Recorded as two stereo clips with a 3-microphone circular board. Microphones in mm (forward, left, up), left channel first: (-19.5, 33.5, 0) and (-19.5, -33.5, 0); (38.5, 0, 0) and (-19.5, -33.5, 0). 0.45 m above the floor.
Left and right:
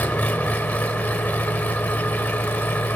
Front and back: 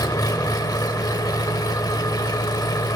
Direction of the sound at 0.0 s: 30° left.